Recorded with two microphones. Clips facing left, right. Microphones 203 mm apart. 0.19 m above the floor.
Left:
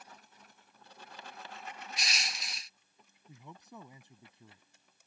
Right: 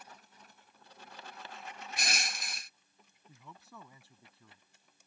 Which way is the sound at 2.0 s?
55° right (ahead or behind).